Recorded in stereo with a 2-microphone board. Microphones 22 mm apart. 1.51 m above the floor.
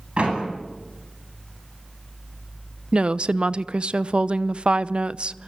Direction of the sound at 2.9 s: 55° right (ahead or behind).